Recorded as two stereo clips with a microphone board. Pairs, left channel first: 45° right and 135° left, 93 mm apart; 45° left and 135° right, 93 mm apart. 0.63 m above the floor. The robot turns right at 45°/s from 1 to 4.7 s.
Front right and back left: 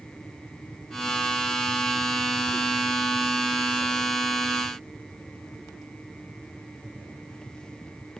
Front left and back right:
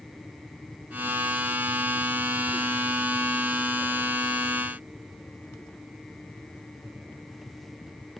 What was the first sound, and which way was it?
Only background noise.